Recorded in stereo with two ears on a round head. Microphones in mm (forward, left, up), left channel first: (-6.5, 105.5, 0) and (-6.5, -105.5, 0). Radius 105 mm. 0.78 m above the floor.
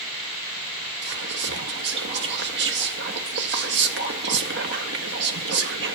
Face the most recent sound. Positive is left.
turn(degrees=-45)  # may be behind; listen again after turning